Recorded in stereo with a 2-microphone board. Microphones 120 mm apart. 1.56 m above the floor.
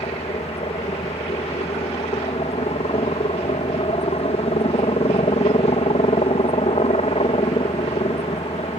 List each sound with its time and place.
0.0 s a helicopter: 60° left (ahead or behind)